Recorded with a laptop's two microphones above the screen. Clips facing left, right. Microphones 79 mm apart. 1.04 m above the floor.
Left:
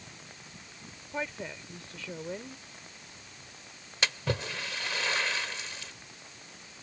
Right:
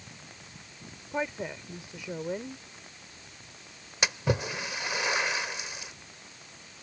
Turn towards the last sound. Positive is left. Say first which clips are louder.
# right 3 dB
turn(degrees=-15)  # may be behind; listen again after turning